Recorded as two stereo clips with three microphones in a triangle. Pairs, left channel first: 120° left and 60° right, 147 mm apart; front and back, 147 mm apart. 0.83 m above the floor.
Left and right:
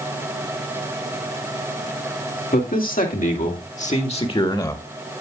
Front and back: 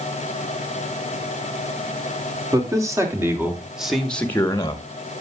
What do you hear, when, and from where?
2.5 s a man speaking: 115° left, 3 m; by 4.8 s 55° left, 1.4 m